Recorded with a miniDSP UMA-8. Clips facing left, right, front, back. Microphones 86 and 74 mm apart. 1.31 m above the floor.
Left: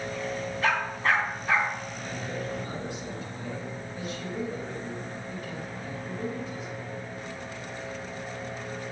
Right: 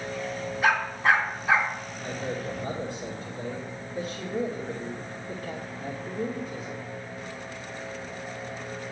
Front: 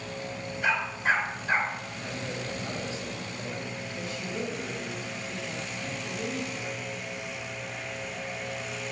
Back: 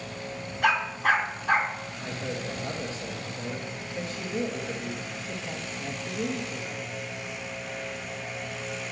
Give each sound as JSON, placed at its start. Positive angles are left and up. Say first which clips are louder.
{"t": 0.6, "sound": "a dog barking", "louder": "right 4 dB, back 3 dB", "azimuth_deg": -165, "distance_m": 3.0}
{"t": 2.0, "sound": "a man speaking", "louder": "right 4 dB, back 3 dB", "azimuth_deg": -140, "distance_m": 2.5}